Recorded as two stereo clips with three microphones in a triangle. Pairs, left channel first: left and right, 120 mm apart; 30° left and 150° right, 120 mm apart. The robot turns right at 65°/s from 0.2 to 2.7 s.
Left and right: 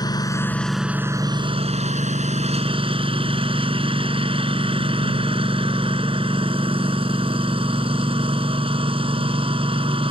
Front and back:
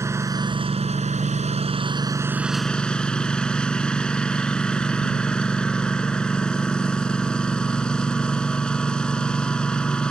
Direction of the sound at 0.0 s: 145° left.